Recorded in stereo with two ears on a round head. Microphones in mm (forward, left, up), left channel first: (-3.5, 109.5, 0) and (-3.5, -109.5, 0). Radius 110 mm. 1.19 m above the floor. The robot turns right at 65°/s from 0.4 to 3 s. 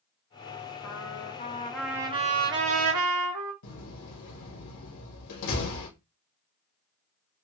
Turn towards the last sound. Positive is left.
turn(degrees=90)